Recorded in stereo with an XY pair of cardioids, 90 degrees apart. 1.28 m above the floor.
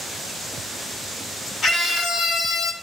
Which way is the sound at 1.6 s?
50° left.